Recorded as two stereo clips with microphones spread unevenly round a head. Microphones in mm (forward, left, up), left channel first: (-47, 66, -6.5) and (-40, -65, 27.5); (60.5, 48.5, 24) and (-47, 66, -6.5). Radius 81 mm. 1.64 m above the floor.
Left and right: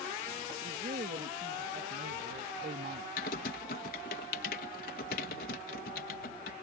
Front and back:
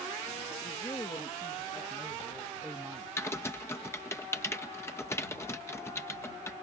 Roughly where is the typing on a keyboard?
Ahead left.